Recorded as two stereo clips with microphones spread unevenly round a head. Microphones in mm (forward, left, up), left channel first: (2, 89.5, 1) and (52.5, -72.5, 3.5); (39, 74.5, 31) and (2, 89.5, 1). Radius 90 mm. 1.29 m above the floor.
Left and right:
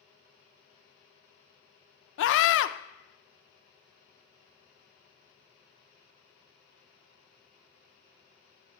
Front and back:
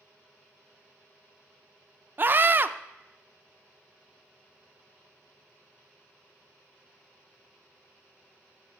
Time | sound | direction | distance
2.2 | a scream | 100° left | 0.6 m